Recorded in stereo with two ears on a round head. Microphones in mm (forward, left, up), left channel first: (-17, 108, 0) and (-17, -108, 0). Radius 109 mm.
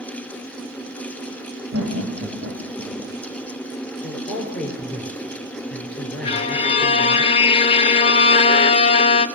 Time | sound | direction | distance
1.7 | laughter | 55° right (ahead or behind) | 6.5 m
4.0 | a man speaking | 5° left (ahead or behind) | 6 m
6.2 | a violin | 25° left (ahead or behind) | 0.7 m